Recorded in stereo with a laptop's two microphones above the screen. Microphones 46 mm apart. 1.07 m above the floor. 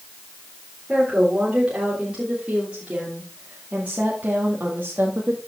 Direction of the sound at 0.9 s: 20° right (ahead or behind).